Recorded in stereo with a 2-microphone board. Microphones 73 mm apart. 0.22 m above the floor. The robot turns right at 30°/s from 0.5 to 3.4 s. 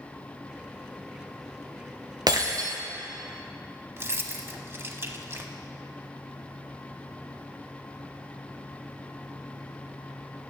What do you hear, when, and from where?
2.3 s breaking glass: 65° right (ahead or behind), 1.8 m; by 2.8 s 50° right (ahead or behind), 1.8 m
4.0 s keys jangling: 35° right (ahead or behind), 0.8 m